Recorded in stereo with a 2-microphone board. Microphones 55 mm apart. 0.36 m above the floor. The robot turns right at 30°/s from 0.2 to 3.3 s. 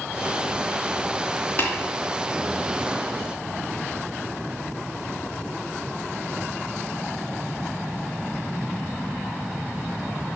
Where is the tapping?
35° left (ahead or behind), 2.5 m; by 1.7 s 40° left (ahead or behind), 2.5 m.